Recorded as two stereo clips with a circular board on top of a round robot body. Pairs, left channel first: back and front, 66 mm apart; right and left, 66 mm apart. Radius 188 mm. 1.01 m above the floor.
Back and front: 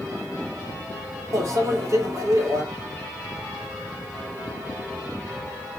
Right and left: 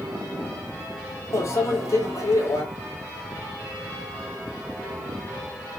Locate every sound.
1.3 s a microwave: 45° right, 2.5 m